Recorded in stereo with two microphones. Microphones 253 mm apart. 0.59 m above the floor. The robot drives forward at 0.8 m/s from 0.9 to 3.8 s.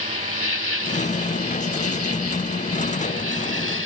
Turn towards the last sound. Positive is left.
turn(degrees=55)  # may be behind; listen again after turning